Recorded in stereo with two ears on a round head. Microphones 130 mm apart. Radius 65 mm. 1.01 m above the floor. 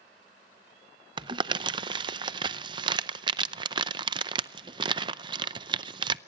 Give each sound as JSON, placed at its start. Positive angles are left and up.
{"t": 1.2, "sound": "crumpling", "side_deg": -30, "distance_m": 0.5}